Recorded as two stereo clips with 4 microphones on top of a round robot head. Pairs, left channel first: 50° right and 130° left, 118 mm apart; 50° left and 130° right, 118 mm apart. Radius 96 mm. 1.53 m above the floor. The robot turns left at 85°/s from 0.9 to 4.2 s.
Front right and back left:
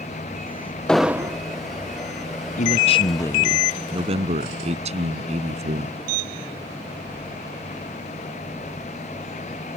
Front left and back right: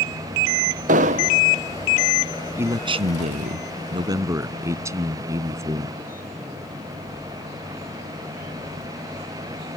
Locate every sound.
0.9 s an explosion: 130° right; by 1.4 s 175° right
2.6 s a man speaking: 60° right; by 6.0 s 160° left